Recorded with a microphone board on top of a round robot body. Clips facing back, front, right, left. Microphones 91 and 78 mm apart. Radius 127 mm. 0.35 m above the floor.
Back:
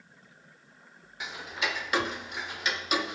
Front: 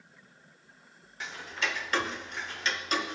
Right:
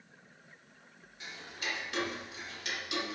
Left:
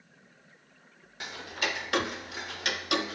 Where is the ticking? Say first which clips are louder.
Back 1 dB, left 7 dB; 100° left, 0.5 m.